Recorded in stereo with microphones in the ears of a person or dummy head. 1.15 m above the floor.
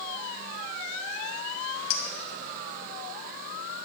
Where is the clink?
80° left, 1.5 m.